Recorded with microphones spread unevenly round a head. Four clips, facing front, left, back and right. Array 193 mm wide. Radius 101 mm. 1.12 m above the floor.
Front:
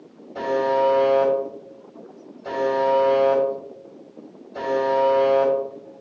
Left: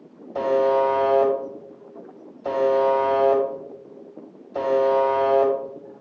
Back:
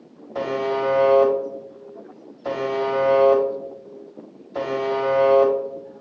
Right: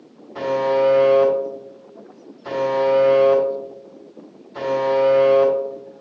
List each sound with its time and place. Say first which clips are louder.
0.3 s a buzzer: even, front 3 dB; 125° left, 1.6 m